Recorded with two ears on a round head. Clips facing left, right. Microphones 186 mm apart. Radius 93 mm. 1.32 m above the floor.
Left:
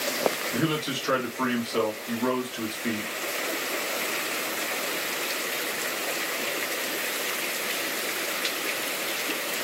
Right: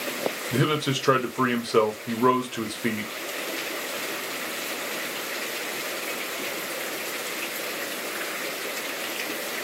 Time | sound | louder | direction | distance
0.5 | a man speaking | right 3 dB | 65° right (ahead or behind) | 0.8 m